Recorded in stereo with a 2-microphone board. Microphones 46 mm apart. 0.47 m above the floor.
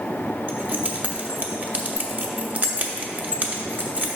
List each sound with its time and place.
0.5 s keys jangling: 35° right (ahead or behind), 0.9 m